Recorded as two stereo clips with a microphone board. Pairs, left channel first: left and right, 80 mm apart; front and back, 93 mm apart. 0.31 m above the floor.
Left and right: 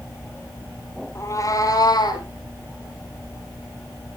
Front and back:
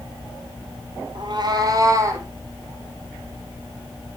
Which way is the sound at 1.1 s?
145° left.